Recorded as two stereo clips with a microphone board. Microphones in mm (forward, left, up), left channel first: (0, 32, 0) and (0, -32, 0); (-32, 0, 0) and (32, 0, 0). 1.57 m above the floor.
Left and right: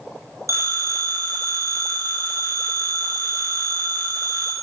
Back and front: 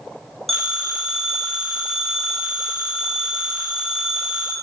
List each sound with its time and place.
0.5 s a phone ringing: 95° right, 1.4 m